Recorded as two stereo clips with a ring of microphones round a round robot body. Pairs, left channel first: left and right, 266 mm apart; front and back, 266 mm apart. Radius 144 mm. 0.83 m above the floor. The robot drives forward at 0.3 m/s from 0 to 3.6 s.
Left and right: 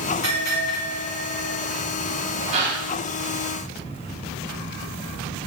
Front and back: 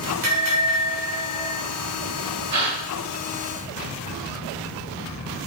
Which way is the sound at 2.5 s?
155° right.